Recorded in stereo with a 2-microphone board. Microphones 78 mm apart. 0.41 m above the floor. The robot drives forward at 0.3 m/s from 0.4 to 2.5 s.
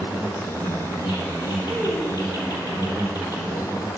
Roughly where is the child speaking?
Left.